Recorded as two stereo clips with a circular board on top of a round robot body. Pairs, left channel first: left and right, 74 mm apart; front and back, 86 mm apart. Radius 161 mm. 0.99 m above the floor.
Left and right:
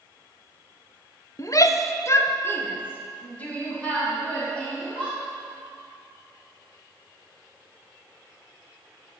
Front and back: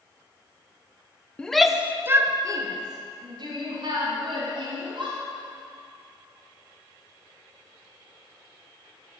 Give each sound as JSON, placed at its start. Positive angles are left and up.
{"t": 1.4, "sound": "a shout", "azimuth_deg": 75, "distance_m": 0.9}